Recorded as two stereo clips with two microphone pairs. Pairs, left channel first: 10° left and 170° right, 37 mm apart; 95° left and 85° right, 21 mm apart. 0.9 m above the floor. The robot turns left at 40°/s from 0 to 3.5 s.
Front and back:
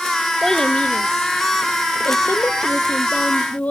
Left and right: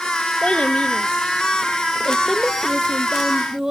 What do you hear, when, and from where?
0.4 s a child speaking: 95° left, 0.9 m; by 3.7 s 30° right, 0.9 m